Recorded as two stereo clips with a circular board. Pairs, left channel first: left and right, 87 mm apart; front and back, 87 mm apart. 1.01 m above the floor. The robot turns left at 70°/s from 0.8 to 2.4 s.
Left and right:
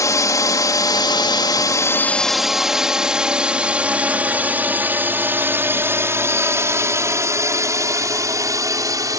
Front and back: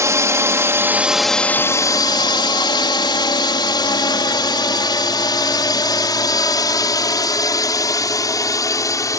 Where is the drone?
130° left; by 9.2 s 45° right.